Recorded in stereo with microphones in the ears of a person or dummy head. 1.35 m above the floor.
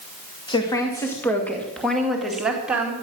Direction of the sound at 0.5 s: 20° left (ahead or behind).